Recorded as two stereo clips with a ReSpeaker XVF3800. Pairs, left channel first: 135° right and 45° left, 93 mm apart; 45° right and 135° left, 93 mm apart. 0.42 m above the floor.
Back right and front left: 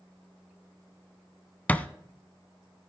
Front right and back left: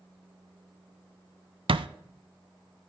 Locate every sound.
1.7 s a thud: 150° left, 0.6 m